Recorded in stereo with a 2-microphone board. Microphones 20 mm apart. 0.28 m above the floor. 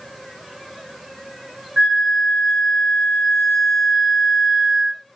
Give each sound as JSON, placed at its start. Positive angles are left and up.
{"t": 1.8, "sound": "a flute", "side_deg": -40, "distance_m": 0.9}